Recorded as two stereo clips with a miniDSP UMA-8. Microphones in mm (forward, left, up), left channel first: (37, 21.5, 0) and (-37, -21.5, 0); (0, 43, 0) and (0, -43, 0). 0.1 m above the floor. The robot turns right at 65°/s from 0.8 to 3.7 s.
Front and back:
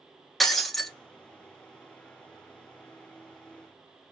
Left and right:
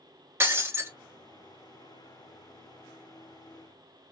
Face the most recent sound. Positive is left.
turn(degrees=130)